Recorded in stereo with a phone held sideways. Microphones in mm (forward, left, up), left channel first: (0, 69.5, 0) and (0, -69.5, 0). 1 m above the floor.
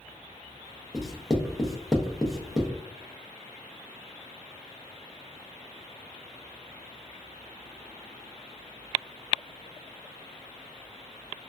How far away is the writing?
About 0.6 m.